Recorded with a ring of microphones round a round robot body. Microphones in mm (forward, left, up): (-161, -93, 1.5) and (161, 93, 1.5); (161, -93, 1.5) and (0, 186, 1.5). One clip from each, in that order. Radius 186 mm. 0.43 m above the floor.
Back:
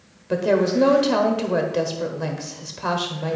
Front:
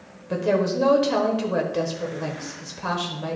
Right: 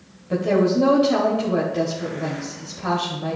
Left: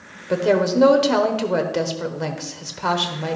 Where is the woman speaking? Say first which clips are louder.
Back 3 dB, left 1 dB; 125° left, 1.2 m.